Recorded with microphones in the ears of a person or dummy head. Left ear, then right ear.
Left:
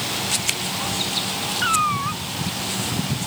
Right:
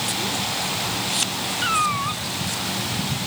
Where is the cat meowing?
10° left (ahead or behind).